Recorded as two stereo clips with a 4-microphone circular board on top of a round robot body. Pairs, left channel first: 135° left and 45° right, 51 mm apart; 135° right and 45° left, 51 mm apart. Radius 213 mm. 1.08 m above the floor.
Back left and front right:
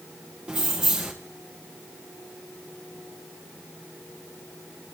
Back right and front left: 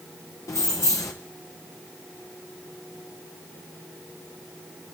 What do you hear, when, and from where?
0.5 s keys jangling: 115° right, 0.6 m